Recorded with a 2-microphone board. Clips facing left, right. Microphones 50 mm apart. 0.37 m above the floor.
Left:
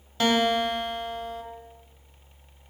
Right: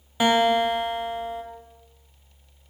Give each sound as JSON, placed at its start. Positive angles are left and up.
{"t": 0.2, "sound": "a guitar", "side_deg": -15, "distance_m": 0.8}